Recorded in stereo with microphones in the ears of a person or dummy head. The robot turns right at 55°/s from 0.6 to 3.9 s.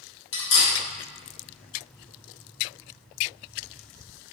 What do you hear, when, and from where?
0.3 s cutlery clinking: 80° left, 1.0 m